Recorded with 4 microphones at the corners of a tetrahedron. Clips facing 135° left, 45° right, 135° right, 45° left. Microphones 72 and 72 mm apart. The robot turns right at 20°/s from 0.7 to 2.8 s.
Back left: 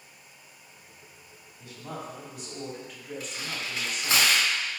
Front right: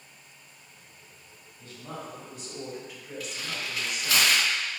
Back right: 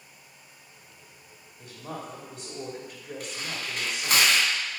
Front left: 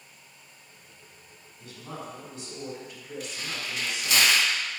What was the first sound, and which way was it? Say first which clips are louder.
A woman speaking: back left 1 dB, back right 2 dB; 155° right.